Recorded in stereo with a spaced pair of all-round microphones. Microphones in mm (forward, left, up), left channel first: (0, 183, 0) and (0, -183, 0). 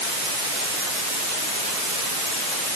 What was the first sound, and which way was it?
Only background noise.